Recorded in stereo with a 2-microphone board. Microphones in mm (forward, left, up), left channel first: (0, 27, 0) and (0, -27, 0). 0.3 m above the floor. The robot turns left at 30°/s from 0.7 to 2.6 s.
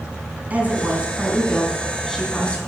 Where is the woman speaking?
150° right, 2.5 m; by 2.6 s 155° left, 2.5 m.